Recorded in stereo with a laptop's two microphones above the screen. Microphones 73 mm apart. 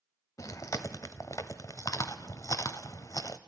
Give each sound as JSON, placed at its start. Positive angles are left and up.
{"t": 0.4, "sound": "chewing", "side_deg": 50, "distance_m": 1.0}